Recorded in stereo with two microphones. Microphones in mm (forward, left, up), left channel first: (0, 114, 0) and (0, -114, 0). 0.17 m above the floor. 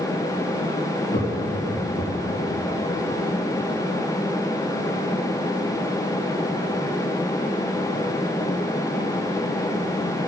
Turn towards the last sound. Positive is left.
turn(degrees=50)  # may be behind; listen again after turning